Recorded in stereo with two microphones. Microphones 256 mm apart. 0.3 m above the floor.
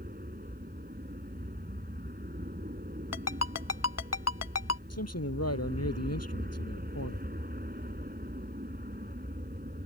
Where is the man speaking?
75° left (ahead or behind).